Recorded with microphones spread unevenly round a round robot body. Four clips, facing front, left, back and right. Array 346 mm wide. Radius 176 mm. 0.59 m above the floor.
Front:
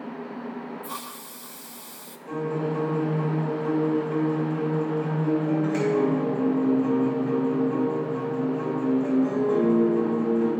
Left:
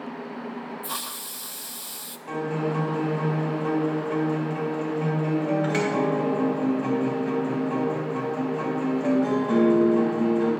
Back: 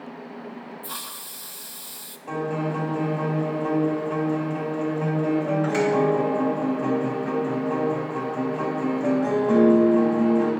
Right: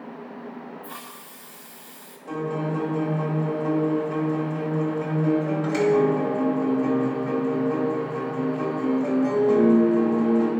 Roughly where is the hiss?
Left.